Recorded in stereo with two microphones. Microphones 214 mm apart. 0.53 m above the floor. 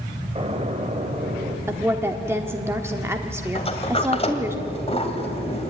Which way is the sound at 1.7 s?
10° right (ahead or behind).